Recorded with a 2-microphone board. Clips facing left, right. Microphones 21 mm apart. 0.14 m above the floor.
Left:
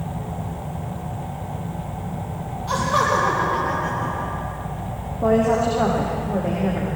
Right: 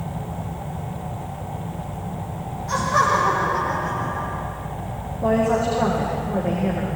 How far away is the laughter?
About 5.5 m.